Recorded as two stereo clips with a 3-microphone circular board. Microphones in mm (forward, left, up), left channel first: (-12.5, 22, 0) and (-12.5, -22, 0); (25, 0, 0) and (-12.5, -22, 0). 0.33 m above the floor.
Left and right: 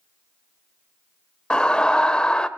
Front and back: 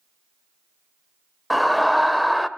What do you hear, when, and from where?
1.5 s a scream: 120° left, 1.4 m